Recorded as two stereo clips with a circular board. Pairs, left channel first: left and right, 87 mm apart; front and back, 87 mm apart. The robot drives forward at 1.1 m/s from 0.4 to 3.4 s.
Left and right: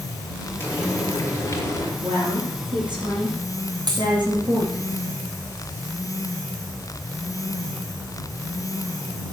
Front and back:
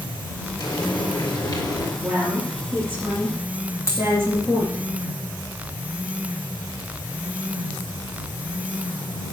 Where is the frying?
30° left, 5 m; by 1.9 s 40° left, 4 m.